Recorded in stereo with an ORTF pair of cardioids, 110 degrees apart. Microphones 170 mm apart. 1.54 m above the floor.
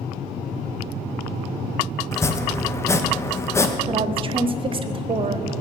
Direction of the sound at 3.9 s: 30° right.